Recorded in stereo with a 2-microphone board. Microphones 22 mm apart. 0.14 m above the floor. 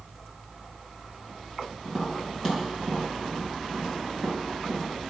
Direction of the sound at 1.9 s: 25° right (ahead or behind).